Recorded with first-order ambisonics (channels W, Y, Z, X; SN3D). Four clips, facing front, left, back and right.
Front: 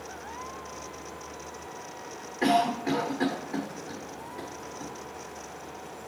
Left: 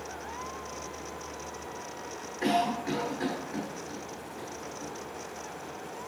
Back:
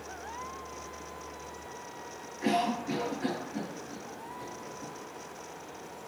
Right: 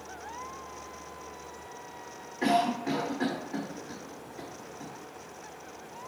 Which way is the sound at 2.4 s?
20° right.